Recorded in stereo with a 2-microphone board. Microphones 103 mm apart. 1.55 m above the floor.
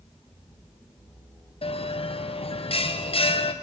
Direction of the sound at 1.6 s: 65° left (ahead or behind).